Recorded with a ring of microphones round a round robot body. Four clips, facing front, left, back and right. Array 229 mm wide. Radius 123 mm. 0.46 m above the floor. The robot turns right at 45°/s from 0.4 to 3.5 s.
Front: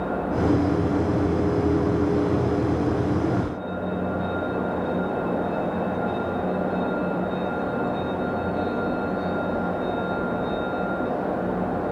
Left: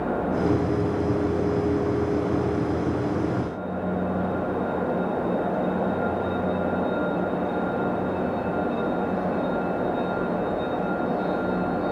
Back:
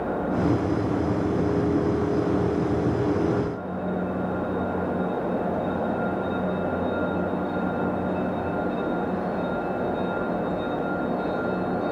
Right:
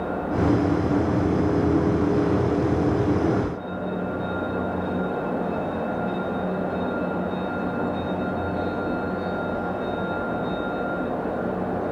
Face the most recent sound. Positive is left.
No sound to turn to.